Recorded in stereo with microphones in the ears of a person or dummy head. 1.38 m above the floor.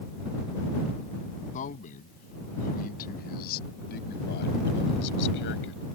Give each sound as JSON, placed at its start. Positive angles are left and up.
{"t": 1.5, "sound": "a man speaking", "side_deg": 45}